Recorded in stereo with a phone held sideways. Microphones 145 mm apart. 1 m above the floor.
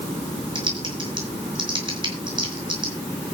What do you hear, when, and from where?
0.6 s typing on a keyboard: 30° right (ahead or behind), 5.5 m